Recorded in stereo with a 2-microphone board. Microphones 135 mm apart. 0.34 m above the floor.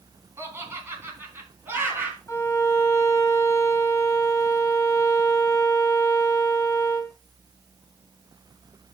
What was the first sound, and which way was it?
Laughter, 20° right (ahead or behind).